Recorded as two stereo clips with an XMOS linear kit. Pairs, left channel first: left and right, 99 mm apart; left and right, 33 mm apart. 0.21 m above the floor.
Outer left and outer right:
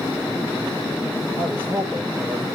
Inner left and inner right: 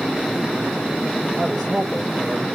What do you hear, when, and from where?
1.4 s a man speaking: 10° left (ahead or behind), 8 m